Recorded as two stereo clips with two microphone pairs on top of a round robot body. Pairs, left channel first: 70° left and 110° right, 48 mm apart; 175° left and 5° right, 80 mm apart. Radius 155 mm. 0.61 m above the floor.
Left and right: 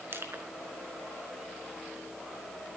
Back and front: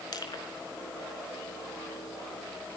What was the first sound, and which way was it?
Crushing, 150° right.